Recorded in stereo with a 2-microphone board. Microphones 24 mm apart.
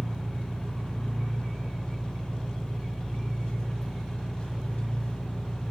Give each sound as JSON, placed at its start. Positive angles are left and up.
{"t": 0.0, "sound": "an engine running", "side_deg": 60, "distance_m": 6.5}